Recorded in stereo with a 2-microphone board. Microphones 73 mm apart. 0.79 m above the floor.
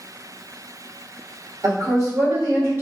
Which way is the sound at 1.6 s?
55° right (ahead or behind).